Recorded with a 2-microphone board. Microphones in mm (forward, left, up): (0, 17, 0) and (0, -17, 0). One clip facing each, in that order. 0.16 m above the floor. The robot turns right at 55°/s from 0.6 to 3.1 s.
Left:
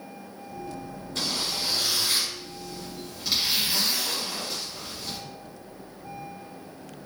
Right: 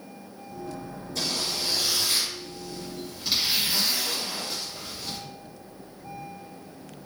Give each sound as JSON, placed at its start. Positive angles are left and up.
{"t": 1.1, "sound": "a zipper", "azimuth_deg": 75, "distance_m": 1.9}